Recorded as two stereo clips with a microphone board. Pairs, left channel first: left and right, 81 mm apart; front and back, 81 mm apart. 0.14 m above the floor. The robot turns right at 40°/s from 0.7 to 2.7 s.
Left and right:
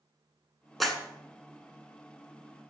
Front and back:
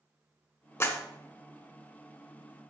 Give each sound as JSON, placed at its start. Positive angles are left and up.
{"t": 0.8, "sound": "a clap", "azimuth_deg": 0, "distance_m": 1.0}